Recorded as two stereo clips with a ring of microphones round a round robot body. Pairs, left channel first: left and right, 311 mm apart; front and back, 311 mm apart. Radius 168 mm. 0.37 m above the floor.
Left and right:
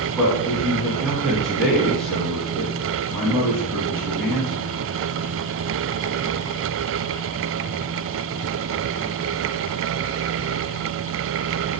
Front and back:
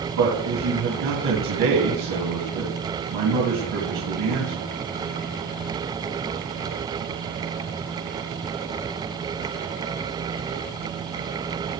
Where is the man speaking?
175° left, 2.5 m.